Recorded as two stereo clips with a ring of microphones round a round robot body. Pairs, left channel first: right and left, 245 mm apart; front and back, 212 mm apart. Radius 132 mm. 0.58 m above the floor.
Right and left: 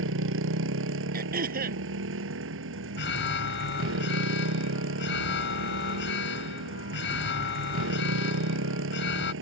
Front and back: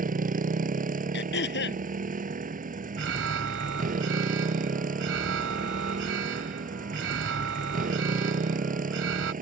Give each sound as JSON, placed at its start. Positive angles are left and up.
{"t": 0.0, "sound": "a motorcycle", "azimuth_deg": 130}
{"t": 1.1, "sound": "throat clearing", "azimuth_deg": 35}
{"t": 3.0, "sound": "an alarm", "azimuth_deg": -135}